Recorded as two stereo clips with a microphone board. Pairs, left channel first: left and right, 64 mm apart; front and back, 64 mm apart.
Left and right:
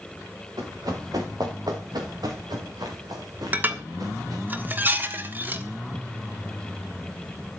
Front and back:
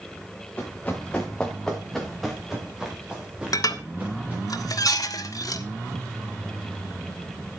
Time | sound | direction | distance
0.6 | running footsteps | 70° right | 4 m
3.5 | dishes clattering | 25° right | 1.3 m